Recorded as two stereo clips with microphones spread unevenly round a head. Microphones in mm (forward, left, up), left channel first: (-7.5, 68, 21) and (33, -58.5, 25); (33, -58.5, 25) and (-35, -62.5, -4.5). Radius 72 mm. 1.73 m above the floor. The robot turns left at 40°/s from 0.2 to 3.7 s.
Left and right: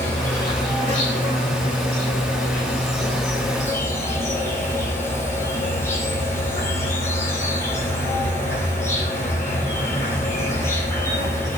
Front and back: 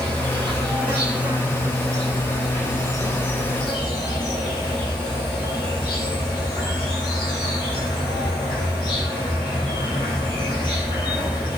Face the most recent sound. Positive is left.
turn(degrees=40)